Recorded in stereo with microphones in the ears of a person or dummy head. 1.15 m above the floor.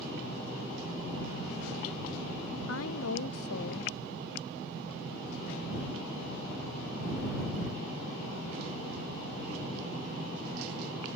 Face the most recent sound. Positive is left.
turn(degrees=75)  # may be behind; listen again after turning